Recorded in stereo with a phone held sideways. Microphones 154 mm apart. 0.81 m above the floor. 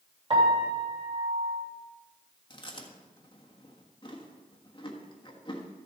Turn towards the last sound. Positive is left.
turn(degrees=30)  # may be behind; listen again after turning